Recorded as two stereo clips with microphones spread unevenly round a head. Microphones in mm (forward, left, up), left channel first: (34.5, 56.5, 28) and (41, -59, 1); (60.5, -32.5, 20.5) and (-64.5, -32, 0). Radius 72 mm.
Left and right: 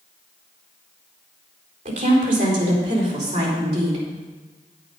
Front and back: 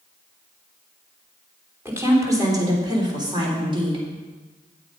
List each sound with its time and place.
1.9 s a woman speaking: 110° right, 3 m; by 4.0 s 135° right, 3.5 m